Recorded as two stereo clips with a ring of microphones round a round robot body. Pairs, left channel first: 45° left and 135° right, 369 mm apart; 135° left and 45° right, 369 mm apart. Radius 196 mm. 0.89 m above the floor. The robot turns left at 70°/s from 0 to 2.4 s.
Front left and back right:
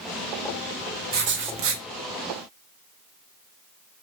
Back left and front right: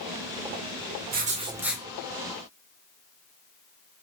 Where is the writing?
90° right, 0.6 m; by 1.8 s 140° right, 0.6 m.